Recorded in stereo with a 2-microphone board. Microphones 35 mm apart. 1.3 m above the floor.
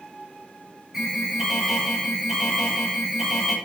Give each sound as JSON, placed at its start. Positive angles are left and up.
{"t": 0.9, "sound": "an alarm", "side_deg": -5, "distance_m": 9.5}